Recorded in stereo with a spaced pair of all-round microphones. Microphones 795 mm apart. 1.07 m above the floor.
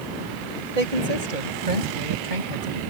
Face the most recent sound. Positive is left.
turn(degrees=-65)  # may be behind; listen again after turning